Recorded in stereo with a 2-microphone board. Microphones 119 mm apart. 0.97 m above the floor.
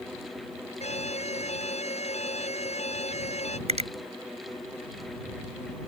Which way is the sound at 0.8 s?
65° left (ahead or behind).